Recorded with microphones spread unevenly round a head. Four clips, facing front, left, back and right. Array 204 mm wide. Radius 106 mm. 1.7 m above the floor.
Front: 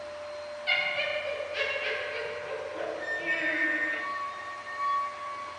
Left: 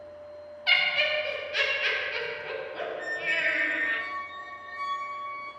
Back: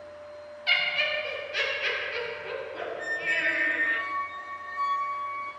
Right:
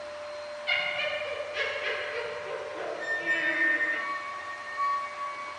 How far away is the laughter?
About 1.4 m.